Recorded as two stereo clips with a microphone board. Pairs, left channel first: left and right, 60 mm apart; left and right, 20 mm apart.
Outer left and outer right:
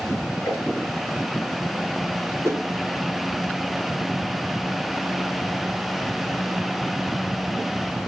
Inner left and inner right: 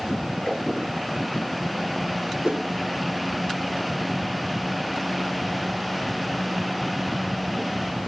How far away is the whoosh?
About 4 m.